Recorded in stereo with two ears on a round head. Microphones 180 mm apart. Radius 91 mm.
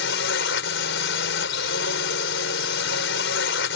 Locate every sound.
0.0 s a drone: 60° left (ahead or behind)